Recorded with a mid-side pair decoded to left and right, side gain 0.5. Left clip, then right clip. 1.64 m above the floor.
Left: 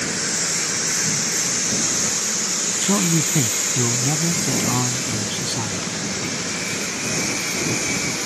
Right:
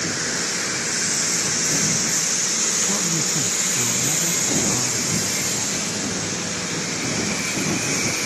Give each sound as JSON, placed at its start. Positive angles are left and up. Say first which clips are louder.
{"t": 2.8, "sound": "a man speaking", "louder": "left 2 dB", "azimuth_deg": 55}